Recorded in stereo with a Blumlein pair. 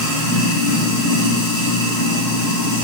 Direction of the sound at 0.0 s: 25° right.